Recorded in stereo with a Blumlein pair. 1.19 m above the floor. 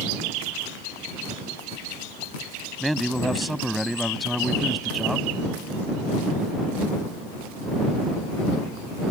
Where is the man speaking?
Straight ahead.